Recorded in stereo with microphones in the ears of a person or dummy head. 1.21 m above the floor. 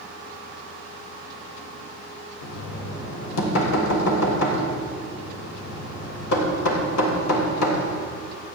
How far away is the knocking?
About 3 m.